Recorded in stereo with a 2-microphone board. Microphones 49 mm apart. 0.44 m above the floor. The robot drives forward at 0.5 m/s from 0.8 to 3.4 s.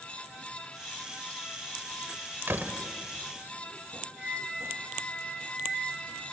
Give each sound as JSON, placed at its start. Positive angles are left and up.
{"t": 2.5, "sound": "a door slam", "side_deg": -50, "distance_m": 1.4}
{"t": 4.2, "sound": "a flute", "side_deg": -20, "distance_m": 7.0}